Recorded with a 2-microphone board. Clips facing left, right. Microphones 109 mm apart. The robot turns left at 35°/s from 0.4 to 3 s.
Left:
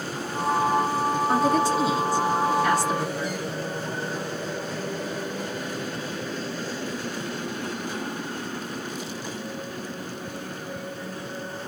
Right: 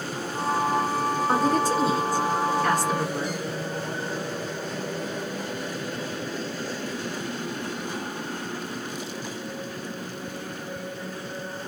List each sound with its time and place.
1.3 s a woman speaking: 55° right, 1.6 m; by 3.4 s 115° right, 1.6 m